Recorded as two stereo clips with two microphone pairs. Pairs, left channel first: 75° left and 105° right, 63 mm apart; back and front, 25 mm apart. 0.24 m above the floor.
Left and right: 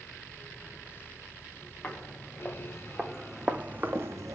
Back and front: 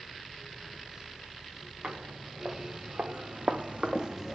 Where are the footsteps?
10° left, 1.5 m; by 4.3 s 80° right, 0.7 m.